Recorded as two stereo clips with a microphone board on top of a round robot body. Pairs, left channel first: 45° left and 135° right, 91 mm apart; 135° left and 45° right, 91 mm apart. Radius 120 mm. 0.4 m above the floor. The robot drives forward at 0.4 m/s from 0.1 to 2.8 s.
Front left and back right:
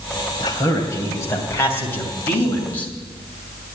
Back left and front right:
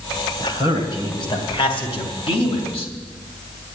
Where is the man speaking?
95° left, 2.5 m; by 2.9 s 115° left, 3 m.